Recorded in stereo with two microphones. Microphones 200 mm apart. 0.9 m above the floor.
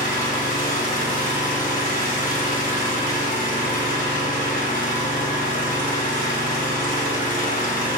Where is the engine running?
45° left (ahead or behind), 0.8 m.